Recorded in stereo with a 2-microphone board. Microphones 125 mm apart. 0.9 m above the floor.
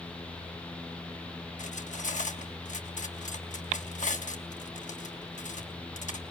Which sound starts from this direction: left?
Cutlery clinking, at 1.6 s.